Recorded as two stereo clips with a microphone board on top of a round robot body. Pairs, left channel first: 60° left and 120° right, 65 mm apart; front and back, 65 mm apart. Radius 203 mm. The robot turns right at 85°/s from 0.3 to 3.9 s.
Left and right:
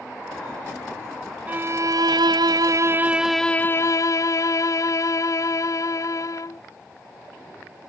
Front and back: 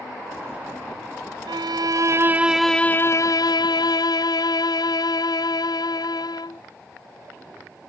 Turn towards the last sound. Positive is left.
turn(degrees=20)